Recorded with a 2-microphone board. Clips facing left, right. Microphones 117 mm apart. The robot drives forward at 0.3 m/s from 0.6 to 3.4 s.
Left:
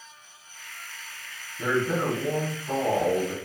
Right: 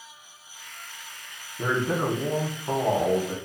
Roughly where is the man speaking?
Right.